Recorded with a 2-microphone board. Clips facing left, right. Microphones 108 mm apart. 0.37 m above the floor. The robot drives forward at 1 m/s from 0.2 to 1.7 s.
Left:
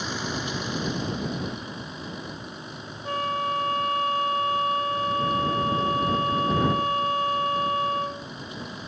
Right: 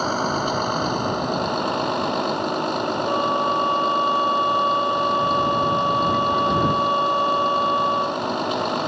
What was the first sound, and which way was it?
A vehicle, 50° right (ahead or behind).